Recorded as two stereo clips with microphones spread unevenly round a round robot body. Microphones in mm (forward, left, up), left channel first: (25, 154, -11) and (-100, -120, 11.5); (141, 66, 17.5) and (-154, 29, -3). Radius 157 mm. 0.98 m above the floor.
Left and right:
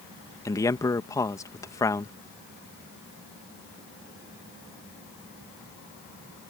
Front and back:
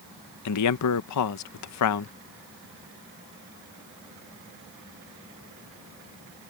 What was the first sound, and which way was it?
A man speaking, 10° right.